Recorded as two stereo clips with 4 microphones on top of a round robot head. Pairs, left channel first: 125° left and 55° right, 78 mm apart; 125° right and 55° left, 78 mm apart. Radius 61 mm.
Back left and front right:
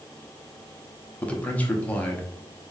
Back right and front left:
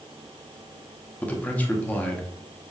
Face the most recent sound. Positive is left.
turn(degrees=180)